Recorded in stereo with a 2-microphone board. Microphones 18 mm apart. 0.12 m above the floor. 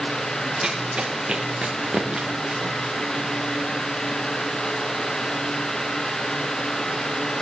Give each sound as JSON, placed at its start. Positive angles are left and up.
{"t": 0.6, "sound": "running footsteps", "side_deg": -70, "distance_m": 3.0}